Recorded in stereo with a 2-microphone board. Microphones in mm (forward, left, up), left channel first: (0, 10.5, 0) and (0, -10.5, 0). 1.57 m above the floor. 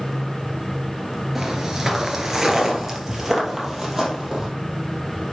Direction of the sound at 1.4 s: 20° right (ahead or behind).